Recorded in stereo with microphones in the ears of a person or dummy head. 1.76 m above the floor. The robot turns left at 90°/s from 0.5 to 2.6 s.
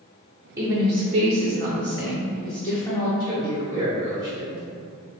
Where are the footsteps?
No footsteps in this recording.